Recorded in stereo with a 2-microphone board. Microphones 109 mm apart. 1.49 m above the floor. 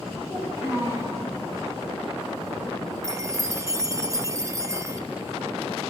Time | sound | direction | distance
0.2 | a child speaking | 25° right (ahead or behind) | 8.5 m
3.0 | a chime | 30° right (ahead or behind) | 0.8 m